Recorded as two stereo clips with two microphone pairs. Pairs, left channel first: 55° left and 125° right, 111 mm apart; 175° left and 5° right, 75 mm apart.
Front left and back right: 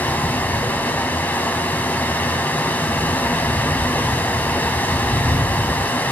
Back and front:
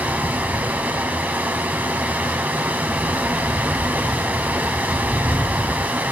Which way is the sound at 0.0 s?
15° left.